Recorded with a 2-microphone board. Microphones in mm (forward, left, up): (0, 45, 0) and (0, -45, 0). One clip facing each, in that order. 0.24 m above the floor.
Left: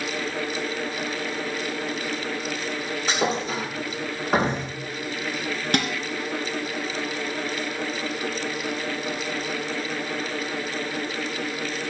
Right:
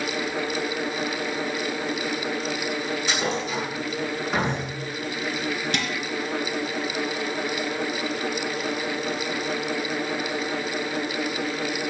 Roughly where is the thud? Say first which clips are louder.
Left 5 dB; left.